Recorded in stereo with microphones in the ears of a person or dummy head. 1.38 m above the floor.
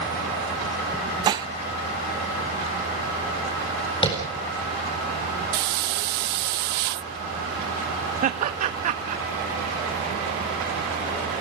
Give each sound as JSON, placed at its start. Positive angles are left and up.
{"t": 1.2, "sound": "dishes clattering", "side_deg": -30, "distance_m": 0.8}
{"t": 4.0, "sound": "tapping", "side_deg": 25, "distance_m": 4.0}
{"t": 5.5, "sound": "a hiss", "side_deg": -60, "distance_m": 0.6}
{"t": 8.2, "sound": "laughter", "side_deg": -45, "distance_m": 1.8}